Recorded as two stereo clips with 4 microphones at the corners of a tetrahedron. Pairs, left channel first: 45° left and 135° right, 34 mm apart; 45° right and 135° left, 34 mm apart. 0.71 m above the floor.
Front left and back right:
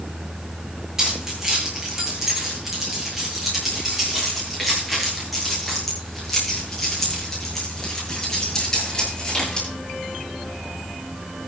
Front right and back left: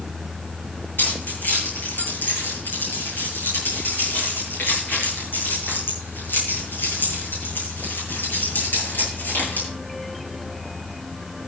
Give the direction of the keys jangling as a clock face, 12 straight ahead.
2 o'clock.